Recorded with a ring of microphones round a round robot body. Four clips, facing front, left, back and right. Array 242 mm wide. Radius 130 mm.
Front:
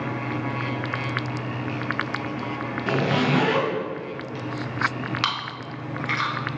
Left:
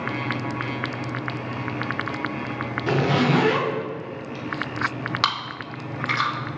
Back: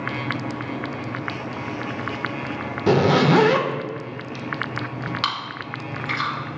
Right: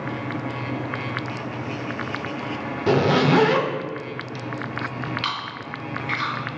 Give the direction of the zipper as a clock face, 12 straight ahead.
5 o'clock.